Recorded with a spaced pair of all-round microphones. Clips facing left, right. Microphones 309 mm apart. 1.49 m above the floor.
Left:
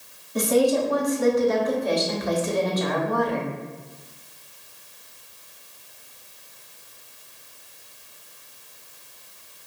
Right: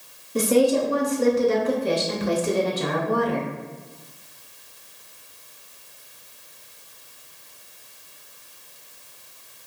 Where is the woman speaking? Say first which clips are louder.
Right 1 dB; 35° right (ahead or behind), 0.9 m.